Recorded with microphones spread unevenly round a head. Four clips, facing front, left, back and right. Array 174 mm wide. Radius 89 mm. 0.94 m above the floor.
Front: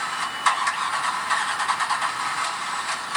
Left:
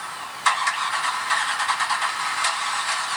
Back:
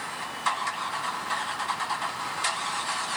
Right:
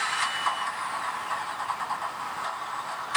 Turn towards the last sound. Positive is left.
No sound to turn to.